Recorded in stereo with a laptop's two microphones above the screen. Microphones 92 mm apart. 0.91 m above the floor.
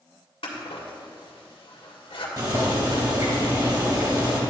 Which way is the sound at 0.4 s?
80° left.